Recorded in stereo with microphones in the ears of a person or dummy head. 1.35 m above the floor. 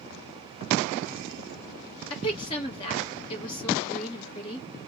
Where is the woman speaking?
20° left (ahead or behind), 1.8 m.